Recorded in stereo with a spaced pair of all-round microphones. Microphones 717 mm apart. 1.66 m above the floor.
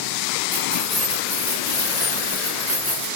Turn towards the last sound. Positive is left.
turn(degrees=-10)  # may be behind; listen again after turning